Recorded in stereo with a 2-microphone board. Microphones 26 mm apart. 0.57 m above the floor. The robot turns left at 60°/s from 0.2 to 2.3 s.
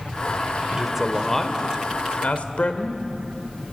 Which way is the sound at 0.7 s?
25° right (ahead or behind).